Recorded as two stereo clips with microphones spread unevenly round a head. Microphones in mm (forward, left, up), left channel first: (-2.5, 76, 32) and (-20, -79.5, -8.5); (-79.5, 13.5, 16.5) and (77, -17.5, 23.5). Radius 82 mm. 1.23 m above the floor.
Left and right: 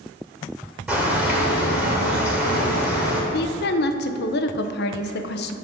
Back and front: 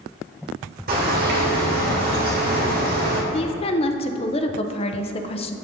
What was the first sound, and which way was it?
A bird, straight ahead.